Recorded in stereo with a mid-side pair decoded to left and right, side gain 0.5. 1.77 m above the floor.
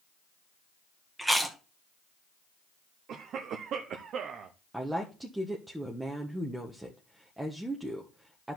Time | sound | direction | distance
1.2 | chewing | straight ahead | 1.7 m
3.1 | a cough | 60° right | 1.0 m
4.7 | a woman speaking | 10° right | 1.4 m